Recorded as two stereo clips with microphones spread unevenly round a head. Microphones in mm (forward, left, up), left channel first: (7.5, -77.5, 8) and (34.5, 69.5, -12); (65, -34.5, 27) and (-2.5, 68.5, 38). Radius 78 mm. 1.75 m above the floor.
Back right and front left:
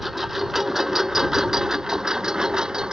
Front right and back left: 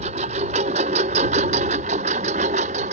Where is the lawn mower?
170° left; by 2.9 s 165° left.